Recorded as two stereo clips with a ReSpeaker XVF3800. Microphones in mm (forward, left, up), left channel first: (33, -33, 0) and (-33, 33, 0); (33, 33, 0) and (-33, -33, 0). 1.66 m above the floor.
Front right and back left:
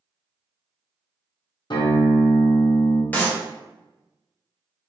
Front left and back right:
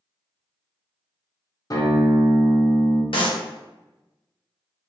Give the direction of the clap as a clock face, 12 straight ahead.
11 o'clock.